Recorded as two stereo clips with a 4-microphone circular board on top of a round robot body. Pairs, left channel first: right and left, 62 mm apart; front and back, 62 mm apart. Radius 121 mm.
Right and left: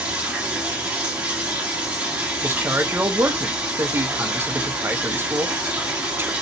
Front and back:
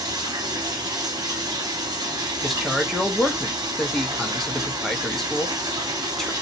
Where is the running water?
155° left, 0.8 m.